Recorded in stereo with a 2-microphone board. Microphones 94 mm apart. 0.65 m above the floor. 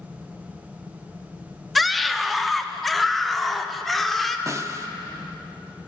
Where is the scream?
Centre (ahead or behind), 1.1 m.